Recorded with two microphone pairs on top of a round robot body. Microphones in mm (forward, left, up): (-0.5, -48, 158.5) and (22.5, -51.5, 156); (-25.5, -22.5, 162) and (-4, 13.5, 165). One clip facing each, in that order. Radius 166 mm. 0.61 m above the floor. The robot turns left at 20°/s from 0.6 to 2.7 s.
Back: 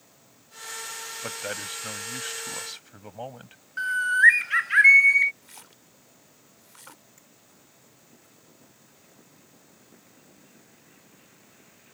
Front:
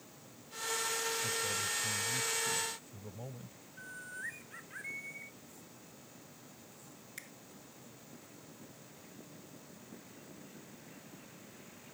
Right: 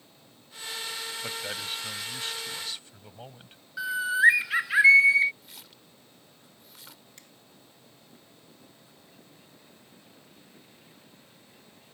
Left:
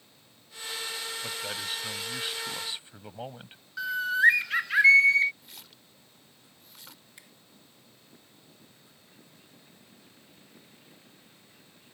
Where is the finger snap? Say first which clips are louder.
Front 8 dB, left 1 dB; 20° right.